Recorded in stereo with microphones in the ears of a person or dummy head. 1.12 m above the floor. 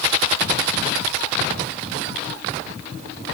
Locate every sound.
Only background noise.